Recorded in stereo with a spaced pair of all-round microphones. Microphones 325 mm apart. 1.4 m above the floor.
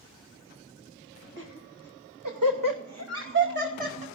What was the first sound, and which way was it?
Laughter, 35° right (ahead or behind).